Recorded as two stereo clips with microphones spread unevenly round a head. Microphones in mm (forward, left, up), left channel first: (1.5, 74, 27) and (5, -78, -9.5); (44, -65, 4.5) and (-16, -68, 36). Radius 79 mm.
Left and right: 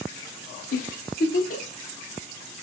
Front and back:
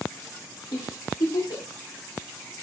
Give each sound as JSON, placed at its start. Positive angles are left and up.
{"t": 0.7, "sound": "a giggle", "azimuth_deg": 55, "distance_m": 0.6}